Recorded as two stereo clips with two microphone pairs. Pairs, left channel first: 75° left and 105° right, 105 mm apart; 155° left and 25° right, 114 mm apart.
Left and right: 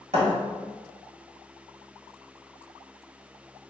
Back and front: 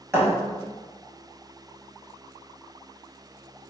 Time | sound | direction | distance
0.1 | a thud | 90° right | 1.3 m